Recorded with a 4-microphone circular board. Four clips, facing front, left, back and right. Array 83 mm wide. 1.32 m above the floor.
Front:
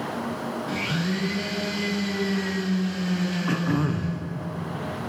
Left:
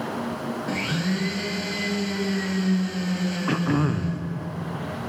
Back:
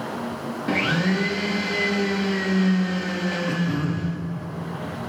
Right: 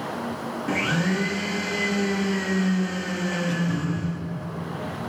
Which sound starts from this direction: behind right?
A blender, at 0.7 s.